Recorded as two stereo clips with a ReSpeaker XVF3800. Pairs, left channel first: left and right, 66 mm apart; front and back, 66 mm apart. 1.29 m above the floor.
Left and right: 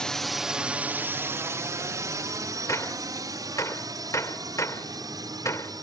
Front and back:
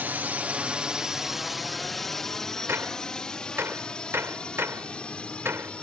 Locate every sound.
0.0 s a drone: 155° left; by 5.8 s 75° right
2.7 s a gunshot: 125° left